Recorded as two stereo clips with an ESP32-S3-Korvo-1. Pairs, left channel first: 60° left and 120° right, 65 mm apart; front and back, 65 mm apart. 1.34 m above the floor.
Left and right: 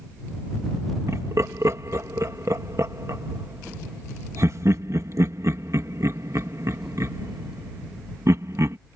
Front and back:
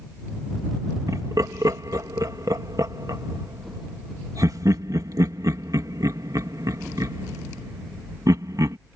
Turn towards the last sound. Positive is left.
turn(degrees=-155)